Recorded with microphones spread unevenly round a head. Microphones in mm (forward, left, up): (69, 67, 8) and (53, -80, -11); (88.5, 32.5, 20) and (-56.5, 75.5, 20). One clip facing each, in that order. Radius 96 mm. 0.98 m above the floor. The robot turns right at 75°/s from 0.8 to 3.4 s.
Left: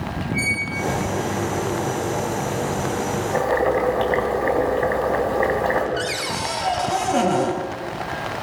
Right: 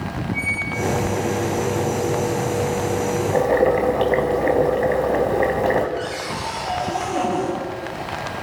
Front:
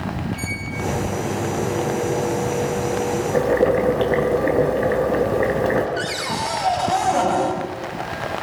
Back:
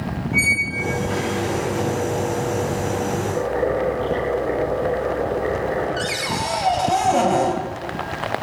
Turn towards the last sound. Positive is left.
turn(degrees=95)